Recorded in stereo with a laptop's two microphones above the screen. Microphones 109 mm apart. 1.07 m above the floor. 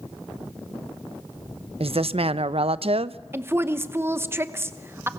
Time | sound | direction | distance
1.8 | a woman speaking | 65° right (ahead or behind) | 0.7 m
3.3 | a woman speaking | 20° right (ahead or behind) | 1.0 m